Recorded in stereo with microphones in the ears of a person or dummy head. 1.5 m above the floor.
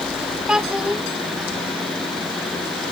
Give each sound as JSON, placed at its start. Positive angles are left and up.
{"t": 0.5, "sound": "a child speaking", "side_deg": -5}